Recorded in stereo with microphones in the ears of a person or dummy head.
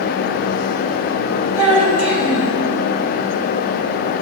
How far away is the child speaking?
About 3.5 m.